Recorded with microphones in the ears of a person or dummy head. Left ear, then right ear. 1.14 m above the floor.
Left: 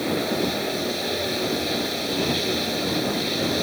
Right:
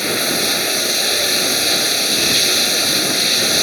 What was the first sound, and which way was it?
Running water, 60° right (ahead or behind).